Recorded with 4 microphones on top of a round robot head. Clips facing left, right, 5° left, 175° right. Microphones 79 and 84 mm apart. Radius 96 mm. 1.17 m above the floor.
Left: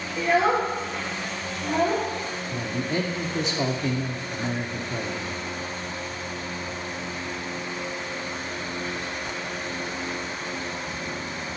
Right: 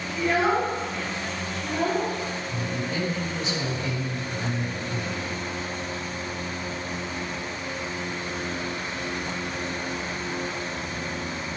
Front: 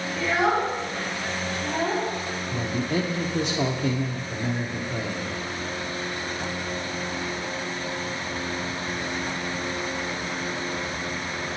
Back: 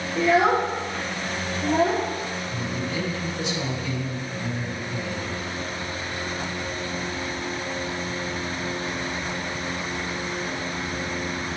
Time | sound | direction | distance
0.2 | a child speaking | 170° left | 2 m
2.5 | a man speaking | 40° left | 0.9 m